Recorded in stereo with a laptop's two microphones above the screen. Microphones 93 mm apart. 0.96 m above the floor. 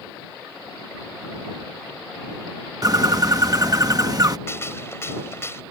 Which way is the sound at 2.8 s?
40° right (ahead or behind).